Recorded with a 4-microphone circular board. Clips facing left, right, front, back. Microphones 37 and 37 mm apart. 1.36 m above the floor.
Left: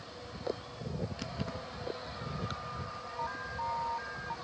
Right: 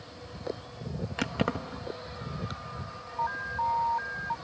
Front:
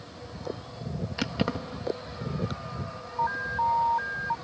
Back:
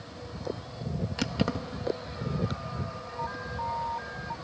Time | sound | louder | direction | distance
1.2 | keys jangling | right 9 dB, front 1 dB | 75° right | ?
3.2 | an alarm | right 8 dB, front 8 dB | 30° right | ?